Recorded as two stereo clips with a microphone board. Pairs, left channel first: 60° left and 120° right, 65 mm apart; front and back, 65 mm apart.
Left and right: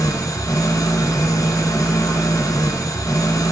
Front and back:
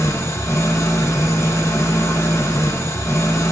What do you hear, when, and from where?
0.0 s an engine running: 40° left, 1.5 m